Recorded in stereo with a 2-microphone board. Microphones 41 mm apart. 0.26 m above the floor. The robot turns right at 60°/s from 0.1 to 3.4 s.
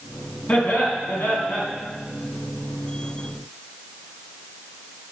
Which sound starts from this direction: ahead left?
Laughter, at 0.5 s.